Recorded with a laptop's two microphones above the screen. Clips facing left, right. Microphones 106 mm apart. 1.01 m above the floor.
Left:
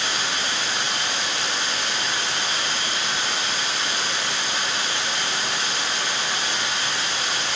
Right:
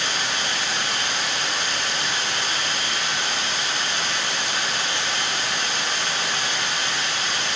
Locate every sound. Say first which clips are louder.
0.0 s running water: even; 40° left (ahead or behind), 3.5 m